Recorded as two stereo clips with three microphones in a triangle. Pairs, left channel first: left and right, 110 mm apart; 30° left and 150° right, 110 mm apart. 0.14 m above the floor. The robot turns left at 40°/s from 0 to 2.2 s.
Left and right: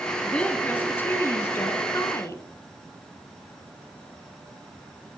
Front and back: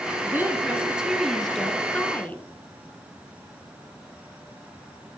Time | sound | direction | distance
0.2 | a woman speaking | 165° left | 1.2 m